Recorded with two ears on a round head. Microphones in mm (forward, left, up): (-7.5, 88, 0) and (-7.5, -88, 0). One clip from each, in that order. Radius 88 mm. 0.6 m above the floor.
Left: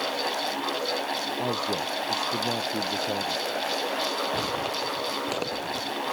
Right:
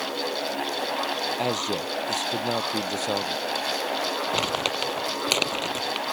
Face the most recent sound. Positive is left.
turn(degrees=-75)  # may be behind; listen again after turning